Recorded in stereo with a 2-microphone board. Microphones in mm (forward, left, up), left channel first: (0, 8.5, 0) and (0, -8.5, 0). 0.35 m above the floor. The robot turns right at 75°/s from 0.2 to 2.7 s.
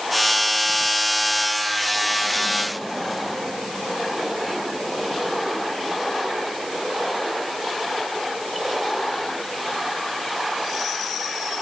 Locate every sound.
Only background noise.